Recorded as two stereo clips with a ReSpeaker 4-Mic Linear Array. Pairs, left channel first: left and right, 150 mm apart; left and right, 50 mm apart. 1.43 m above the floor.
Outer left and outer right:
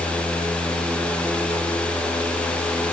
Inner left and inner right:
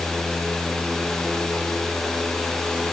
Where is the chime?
I don't hear a chime.